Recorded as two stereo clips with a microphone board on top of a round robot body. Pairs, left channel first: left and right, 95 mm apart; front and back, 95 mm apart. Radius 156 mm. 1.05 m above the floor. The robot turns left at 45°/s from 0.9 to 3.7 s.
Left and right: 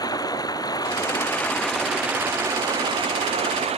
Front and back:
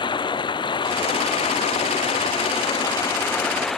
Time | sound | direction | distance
0.0 | running water | 40° left | ?